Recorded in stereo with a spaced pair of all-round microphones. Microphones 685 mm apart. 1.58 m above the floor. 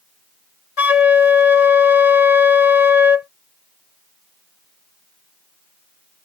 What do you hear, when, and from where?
0.8 s a flute: 60° left (ahead or behind)